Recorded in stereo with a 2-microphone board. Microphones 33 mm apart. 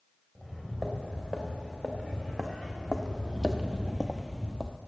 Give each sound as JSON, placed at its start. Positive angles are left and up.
{"t": 0.3, "sound": "footsteps", "side_deg": -10, "distance_m": 3.0}